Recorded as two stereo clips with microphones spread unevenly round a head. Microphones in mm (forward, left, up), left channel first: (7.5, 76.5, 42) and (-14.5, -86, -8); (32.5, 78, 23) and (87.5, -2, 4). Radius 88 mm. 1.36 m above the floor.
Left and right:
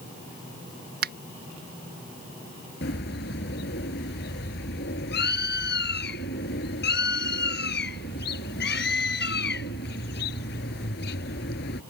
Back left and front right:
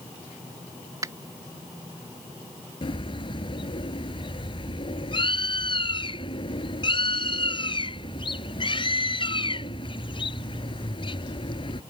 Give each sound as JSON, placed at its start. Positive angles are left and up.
{"t": 1.0, "sound": "a finger snap", "azimuth_deg": -130}
{"t": 2.8, "sound": "a bird", "azimuth_deg": 100}